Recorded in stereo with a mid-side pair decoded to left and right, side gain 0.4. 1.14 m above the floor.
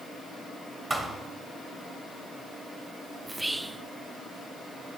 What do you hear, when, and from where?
0.9 s a thud: 30° right, 2.5 m
3.3 s whispering: 15° right, 0.7 m